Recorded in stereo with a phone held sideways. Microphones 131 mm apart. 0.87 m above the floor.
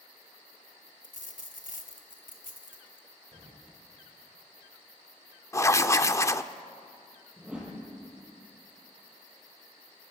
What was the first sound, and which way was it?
A dropped coin, 80° left.